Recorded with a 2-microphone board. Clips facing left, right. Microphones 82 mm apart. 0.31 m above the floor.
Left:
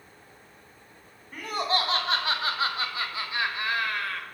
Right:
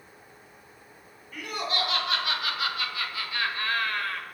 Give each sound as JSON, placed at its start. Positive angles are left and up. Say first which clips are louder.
{"t": 1.3, "sound": "laughter", "louder": "left 4 dB", "side_deg": 35, "distance_m": 3.5}